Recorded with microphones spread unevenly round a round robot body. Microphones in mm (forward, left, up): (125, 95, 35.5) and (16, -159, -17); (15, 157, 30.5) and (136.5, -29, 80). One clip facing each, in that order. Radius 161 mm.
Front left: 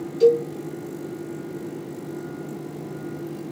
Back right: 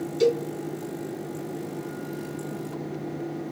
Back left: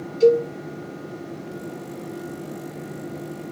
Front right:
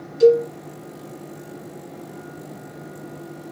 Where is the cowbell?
85° right, 3 m.